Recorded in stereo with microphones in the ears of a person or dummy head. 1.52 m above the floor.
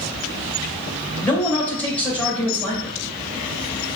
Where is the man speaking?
10° left (ahead or behind), 2.5 m.